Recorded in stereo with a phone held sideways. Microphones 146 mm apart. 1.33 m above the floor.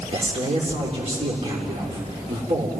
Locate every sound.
0.1 s a man speaking: 50° right (ahead or behind), 3.5 m